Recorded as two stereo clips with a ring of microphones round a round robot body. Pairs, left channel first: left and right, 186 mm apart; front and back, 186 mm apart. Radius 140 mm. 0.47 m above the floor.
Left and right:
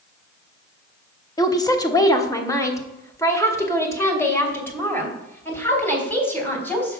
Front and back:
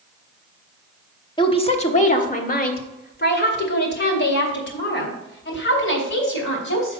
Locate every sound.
1.4 s a woman speaking: 40° left, 1.2 m; by 7.0 s 10° left, 4 m